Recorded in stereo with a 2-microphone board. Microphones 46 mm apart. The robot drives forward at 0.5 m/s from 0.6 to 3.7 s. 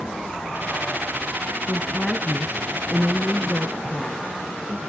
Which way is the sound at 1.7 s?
20° left (ahead or behind).